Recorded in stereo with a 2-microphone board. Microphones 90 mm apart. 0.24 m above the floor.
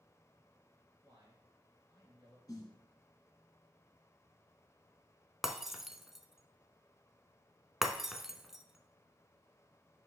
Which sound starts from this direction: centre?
Breaking glass, at 5.4 s.